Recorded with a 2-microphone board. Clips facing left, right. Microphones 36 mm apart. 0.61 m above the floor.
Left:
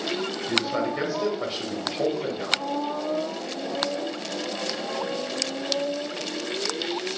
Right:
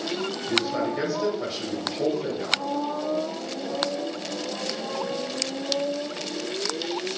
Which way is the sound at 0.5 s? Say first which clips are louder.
Even; 20° left (ahead or behind).